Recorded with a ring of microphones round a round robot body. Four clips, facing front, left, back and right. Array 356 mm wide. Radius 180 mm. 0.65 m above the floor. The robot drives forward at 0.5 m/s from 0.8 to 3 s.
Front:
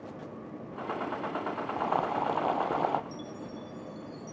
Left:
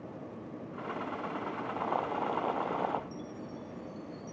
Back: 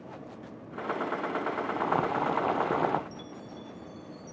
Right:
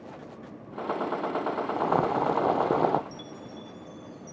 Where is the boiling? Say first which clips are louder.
Right 7 dB, even; 105° right.